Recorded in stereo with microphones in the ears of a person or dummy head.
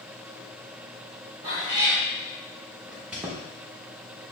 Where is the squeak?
10° right (ahead or behind), 0.7 m.